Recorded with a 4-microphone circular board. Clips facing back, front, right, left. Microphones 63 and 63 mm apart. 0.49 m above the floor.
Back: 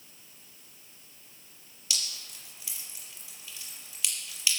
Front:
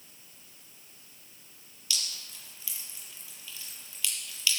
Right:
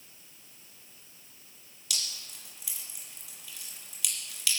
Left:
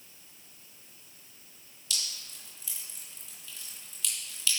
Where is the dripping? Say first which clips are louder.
Even, even; 110° right, 4.5 m.